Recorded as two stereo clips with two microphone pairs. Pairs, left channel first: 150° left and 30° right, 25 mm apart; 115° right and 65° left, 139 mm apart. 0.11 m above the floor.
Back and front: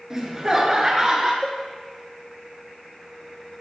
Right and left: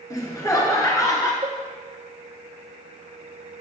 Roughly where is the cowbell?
Left.